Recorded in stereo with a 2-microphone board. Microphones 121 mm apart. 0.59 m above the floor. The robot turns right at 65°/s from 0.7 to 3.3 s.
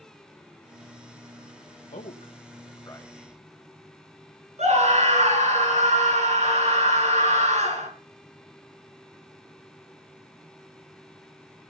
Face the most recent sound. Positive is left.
turn(degrees=-65)  # may be behind; listen again after turning